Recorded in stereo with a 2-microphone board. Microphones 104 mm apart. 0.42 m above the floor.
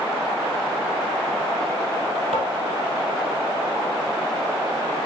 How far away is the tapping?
About 2.5 m.